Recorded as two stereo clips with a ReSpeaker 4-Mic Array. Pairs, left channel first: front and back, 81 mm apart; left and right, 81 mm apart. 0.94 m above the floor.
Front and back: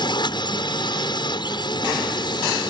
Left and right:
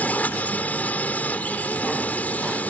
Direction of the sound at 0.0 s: 20° left.